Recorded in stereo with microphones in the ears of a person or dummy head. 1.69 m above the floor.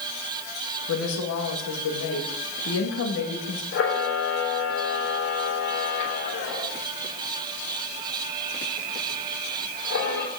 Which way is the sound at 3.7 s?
70° left (ahead or behind).